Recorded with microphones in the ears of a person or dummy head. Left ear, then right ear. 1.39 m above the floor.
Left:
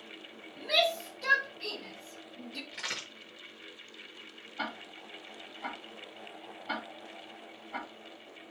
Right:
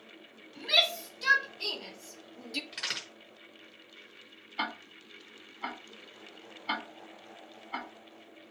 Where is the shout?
40° right (ahead or behind), 4.5 m; by 2.6 s 70° right (ahead or behind), 1.5 m.